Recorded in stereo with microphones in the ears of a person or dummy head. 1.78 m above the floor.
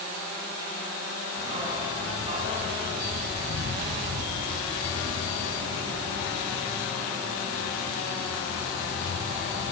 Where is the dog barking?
35° right (ahead or behind), 3 m.